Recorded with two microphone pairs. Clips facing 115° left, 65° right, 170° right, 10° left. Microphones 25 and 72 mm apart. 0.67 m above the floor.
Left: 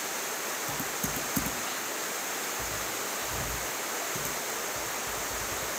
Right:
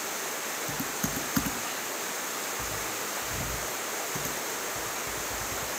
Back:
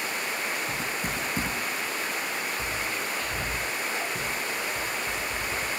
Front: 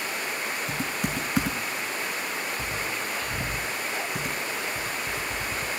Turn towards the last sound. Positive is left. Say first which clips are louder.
# right 1 dB, front 1 dB
turn(degrees=-10)